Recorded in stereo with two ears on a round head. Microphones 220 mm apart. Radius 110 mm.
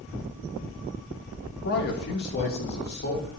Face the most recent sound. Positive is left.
turn(degrees=40)  # may be behind; listen again after turning